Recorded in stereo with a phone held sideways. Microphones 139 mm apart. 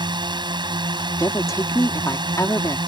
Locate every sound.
0.0 s a drone: 30° right (ahead or behind)
1.2 s a woman speaking: 20° left (ahead or behind)